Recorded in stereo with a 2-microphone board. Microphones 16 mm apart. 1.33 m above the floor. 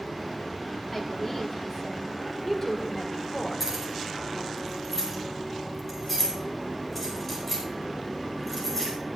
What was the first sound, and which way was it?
A woman speaking, 40° left (ahead or behind).